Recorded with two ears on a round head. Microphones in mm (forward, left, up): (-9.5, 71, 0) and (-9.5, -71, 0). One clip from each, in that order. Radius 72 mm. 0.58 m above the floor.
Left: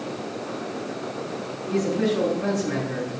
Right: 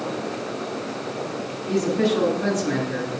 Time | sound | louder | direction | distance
1.7 | a man speaking | right 2 dB | 25° right (ahead or behind) | 6.5 m